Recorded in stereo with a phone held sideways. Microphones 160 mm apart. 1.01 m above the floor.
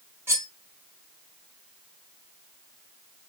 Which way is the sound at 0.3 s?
15° right (ahead or behind).